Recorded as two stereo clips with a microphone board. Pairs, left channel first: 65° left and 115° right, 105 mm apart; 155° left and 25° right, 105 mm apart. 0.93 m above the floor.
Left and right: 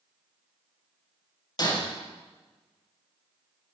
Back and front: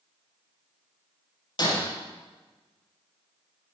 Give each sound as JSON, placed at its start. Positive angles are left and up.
{"t": 1.6, "sound": "breaking glass", "azimuth_deg": 115, "distance_m": 6.5}